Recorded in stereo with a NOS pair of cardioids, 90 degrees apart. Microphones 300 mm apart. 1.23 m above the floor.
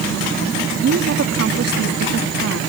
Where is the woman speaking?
55° right.